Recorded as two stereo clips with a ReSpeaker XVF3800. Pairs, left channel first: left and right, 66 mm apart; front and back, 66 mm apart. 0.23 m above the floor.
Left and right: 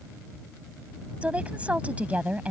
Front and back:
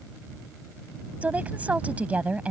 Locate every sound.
1.2 s a woman speaking: 135° right